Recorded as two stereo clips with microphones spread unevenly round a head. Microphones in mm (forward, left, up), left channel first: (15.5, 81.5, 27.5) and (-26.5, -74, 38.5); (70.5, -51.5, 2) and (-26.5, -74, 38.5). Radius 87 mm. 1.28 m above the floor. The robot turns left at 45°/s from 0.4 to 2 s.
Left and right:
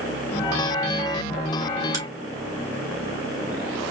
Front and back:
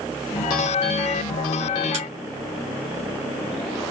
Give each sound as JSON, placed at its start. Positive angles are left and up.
{"t": 1.9, "sound": "a crack", "azimuth_deg": -175, "distance_m": 2.5}